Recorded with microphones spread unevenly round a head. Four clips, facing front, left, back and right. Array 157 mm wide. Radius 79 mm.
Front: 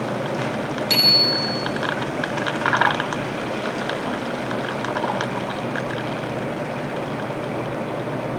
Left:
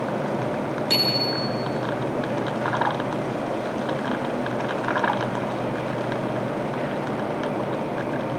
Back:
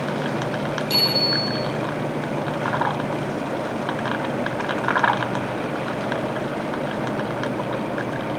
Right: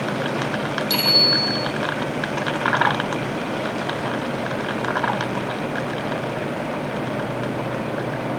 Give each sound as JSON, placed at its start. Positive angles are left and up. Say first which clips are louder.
{"t": 0.9, "sound": "a bicycle bell", "louder": "right 2 dB, even", "azimuth_deg": 10, "distance_m": 9.0}